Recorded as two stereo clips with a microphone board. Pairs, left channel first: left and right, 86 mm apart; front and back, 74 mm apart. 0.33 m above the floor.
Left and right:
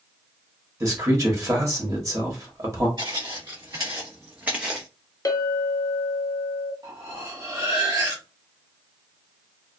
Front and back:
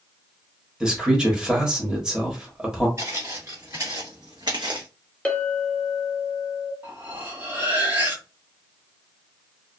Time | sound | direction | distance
0.8 | a man speaking | 105° right | 1.1 m
3.0 | footsteps | 130° right | 1.6 m
5.2 | a clink | 70° left | 0.6 m
6.8 | cutlery clinking | 125° right | 1.1 m